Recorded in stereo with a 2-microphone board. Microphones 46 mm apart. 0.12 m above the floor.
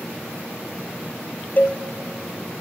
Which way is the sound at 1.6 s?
35° left (ahead or behind).